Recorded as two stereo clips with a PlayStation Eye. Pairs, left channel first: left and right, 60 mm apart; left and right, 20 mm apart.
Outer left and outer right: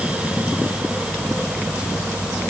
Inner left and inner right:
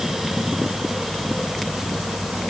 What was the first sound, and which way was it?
Only background noise.